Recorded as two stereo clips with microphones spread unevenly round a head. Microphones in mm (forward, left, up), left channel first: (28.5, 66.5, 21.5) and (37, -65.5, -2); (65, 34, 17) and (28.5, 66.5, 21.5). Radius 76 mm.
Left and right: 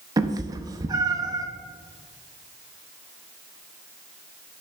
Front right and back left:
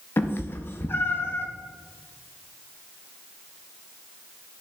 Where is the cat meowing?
25° right, 0.6 m.